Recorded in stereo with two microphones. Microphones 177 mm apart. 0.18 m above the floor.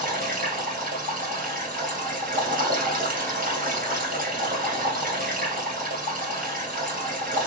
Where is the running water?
50° right (ahead or behind), 2.5 m.